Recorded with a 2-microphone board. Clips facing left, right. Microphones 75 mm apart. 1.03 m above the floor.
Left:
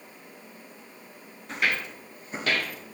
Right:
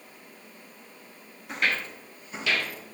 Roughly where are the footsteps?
Centre.